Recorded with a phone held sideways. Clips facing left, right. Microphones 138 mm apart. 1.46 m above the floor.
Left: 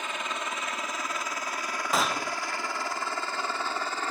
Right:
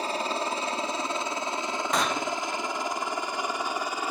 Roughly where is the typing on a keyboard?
I don't hear typing on a keyboard.